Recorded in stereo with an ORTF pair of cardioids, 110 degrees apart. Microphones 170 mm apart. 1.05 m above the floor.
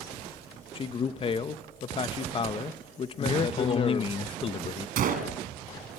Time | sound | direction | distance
0.8 | a man speaking | 35° left | 1.0 m
3.2 | a man speaking | 35° left | 0.7 m
5.0 | a gunshot | 60° right | 2.5 m